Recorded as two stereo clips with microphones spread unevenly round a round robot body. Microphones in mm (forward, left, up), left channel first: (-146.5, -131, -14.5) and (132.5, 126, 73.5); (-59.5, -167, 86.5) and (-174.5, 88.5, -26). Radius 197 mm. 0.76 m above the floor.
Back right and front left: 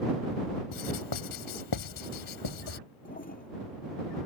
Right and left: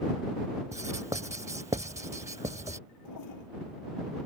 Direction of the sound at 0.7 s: 170° right.